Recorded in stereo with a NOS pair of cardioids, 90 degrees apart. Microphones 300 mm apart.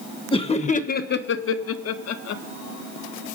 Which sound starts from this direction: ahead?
Laughter, at 0.3 s.